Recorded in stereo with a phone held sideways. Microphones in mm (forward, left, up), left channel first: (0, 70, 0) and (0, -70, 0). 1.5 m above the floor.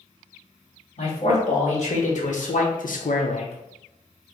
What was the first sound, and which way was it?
A man speaking, 45° left (ahead or behind).